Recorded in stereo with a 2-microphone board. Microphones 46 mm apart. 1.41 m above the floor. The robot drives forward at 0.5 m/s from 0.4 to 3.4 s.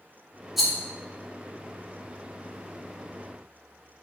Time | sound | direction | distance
0.6 | a rattle | 5° right (ahead or behind) | 1.0 m